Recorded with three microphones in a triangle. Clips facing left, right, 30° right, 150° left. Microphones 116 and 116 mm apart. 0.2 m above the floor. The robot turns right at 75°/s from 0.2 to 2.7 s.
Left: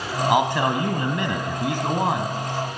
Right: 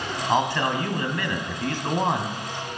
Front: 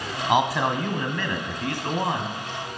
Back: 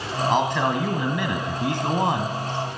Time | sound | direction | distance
0.3 | a man speaking | 30° left | 1.4 m